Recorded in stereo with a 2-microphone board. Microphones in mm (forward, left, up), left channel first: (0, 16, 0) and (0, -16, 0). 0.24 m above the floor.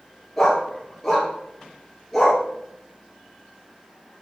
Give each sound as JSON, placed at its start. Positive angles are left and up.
{"t": 0.4, "sound": "a dog barking", "side_deg": 5, "distance_m": 1.7}